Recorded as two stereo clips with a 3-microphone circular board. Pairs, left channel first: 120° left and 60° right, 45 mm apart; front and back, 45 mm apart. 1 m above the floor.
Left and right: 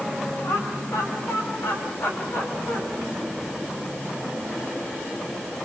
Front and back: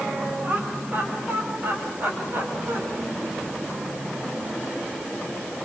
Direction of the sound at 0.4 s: 125° left.